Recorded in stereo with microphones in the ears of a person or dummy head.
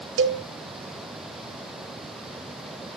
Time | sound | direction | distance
0.2 | a cowbell | 75° right (ahead or behind) | 2 m